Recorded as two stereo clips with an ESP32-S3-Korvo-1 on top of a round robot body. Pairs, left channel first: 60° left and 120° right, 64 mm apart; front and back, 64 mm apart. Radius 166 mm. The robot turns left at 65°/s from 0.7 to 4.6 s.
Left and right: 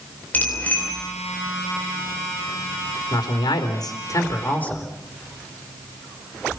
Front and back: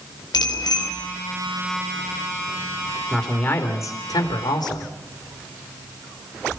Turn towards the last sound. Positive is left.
turn(degrees=-10)